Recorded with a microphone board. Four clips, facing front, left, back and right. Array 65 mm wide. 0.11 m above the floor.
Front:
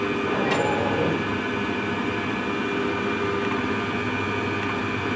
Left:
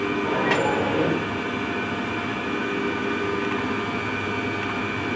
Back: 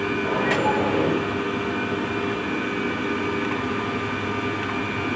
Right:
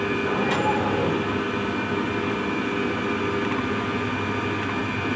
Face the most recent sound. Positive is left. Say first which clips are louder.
# left 2 dB, back 2 dB
turn(degrees=115)